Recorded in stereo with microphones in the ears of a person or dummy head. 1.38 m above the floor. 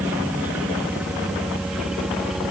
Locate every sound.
0.0 s a helicopter: 10° right (ahead or behind); by 2.5 s 5° right (ahead or behind)